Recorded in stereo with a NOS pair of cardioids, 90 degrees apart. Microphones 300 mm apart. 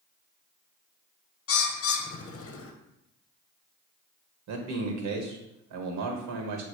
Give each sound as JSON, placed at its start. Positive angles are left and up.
{"t": 1.5, "sound": "a bird", "azimuth_deg": 50, "distance_m": 0.7}
{"t": 4.5, "sound": "a man speaking", "azimuth_deg": -70, "distance_m": 1.2}